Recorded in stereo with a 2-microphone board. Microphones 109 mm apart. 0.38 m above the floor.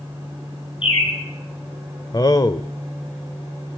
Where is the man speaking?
35° left (ahead or behind), 1.0 m.